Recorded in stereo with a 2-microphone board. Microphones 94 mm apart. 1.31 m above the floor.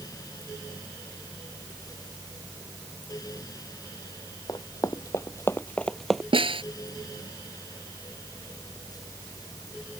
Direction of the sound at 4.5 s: 45° left (ahead or behind).